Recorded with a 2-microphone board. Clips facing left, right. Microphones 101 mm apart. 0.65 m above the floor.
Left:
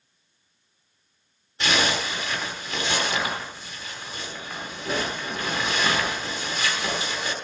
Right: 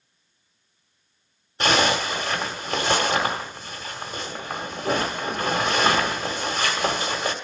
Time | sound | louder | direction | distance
1.6 | a zipper | right 4 dB | 50° right (ahead or behind) | 1.5 m